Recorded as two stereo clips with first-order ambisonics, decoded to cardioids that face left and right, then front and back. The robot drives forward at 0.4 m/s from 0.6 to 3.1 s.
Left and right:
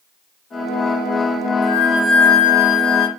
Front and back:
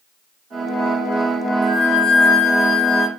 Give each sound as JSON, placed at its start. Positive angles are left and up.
{"t": 1.6, "sound": "a flute", "azimuth_deg": 45, "distance_m": 1.3}